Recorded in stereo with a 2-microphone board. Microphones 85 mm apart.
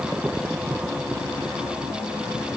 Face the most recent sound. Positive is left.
No sound to turn to.